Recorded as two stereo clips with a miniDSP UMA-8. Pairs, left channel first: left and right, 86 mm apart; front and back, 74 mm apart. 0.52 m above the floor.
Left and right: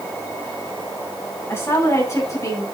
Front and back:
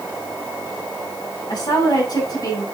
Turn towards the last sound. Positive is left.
turn(degrees=35)